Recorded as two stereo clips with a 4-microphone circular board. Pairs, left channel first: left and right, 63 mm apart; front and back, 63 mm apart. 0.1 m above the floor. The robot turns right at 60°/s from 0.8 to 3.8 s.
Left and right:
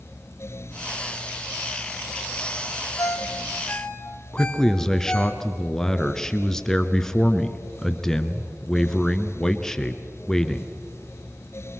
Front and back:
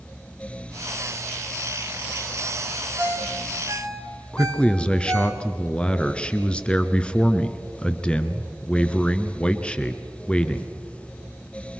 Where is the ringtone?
110° left, 1.8 m; by 5.3 s 160° left, 1.8 m.